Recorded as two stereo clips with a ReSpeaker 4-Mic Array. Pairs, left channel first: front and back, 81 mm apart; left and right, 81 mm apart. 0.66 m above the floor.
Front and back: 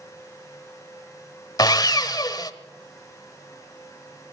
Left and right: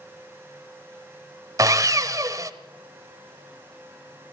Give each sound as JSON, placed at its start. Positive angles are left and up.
{"t": 1.6, "sound": "sawing", "azimuth_deg": -40, "distance_m": 1.0}